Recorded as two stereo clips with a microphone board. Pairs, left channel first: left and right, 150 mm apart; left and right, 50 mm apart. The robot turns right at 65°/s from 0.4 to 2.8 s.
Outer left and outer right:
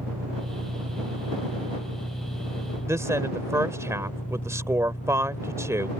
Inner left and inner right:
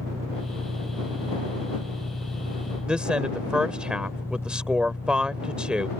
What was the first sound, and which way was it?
An engine running, 95° right.